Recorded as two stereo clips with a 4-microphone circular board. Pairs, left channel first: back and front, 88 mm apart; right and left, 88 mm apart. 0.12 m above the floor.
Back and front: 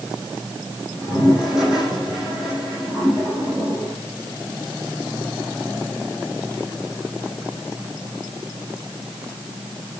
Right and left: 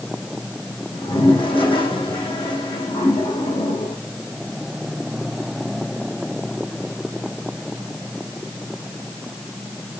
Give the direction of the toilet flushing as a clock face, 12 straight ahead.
3 o'clock.